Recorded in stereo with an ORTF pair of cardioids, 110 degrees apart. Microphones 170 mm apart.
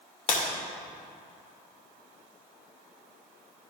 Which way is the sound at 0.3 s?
55° left.